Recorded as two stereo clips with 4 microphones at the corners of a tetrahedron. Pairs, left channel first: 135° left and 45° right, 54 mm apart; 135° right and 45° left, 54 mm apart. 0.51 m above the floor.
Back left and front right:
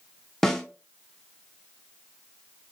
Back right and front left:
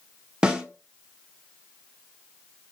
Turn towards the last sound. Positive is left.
turn(degrees=75)